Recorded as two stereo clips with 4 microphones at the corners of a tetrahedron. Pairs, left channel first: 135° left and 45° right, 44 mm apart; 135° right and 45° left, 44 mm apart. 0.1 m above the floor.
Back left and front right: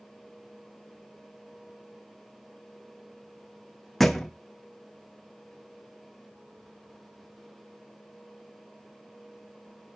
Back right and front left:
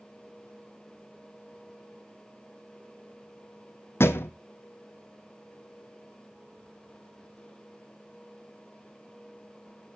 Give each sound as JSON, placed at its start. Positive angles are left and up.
{"t": 4.0, "sound": "a thud", "azimuth_deg": -135, "distance_m": 1.0}